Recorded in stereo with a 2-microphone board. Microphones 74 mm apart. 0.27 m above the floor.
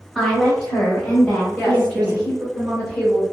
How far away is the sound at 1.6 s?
About 1.3 m.